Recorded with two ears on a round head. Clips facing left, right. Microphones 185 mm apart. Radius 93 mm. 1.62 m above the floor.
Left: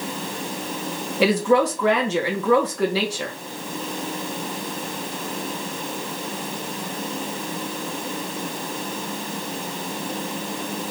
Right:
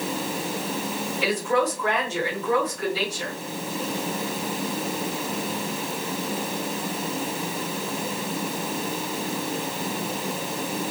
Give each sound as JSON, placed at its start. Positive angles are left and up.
{"t": 1.2, "sound": "a woman speaking", "side_deg": 55, "distance_m": 2.5}